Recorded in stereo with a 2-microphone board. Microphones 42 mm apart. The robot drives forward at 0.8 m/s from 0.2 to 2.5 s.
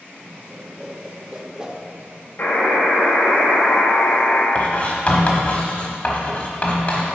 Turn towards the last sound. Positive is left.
turn(degrees=35)  # may be behind; listen again after turning